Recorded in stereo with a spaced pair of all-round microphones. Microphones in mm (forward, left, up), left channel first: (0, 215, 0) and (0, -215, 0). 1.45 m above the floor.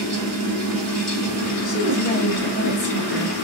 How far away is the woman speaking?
About 2 m.